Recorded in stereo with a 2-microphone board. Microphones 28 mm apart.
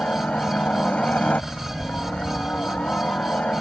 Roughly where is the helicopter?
Left.